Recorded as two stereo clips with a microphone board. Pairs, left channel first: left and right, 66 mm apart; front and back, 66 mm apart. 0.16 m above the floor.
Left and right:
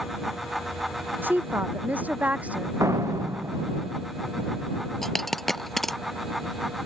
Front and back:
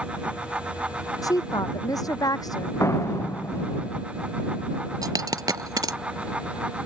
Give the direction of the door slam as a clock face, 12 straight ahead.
2 o'clock.